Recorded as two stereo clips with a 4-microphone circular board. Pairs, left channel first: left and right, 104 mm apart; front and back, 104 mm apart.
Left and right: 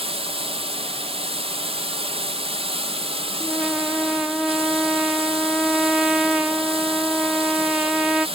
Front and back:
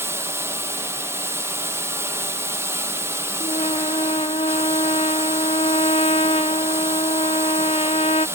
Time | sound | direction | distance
0.0 | running water | 115° right | 0.9 m
3.4 | a trumpet | 10° right | 0.5 m